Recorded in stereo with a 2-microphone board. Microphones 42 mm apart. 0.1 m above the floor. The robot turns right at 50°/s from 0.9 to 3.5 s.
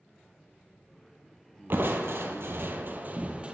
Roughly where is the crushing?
Behind right.